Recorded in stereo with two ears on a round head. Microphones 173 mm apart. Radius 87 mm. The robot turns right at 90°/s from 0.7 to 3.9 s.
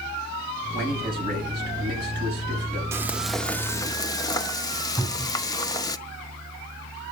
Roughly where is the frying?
Centre.